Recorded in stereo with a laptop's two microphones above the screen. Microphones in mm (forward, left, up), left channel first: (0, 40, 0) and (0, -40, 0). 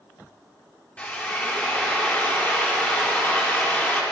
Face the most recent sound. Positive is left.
turn(degrees=15)  # may be behind; listen again after turning